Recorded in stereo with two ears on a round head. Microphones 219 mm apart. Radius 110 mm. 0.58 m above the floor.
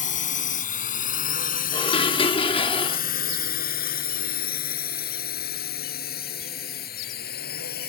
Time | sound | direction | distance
0.0 | a drone | 30° left (ahead or behind) | ?
1.7 | dishes clattering | 20° left (ahead or behind) | ?